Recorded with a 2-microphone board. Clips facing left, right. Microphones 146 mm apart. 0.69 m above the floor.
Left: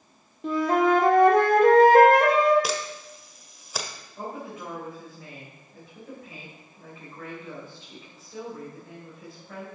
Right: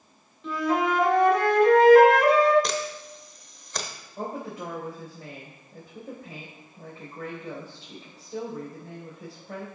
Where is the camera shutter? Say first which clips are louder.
Even; 5° left (ahead or behind), 1.0 m.